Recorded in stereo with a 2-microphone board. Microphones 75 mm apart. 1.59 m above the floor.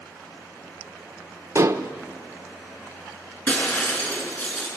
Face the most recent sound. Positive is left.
turn(degrees=25)  # may be behind; listen again after turning